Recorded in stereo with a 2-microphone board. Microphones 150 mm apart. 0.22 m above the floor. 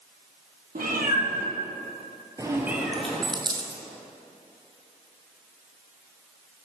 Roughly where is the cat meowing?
Right.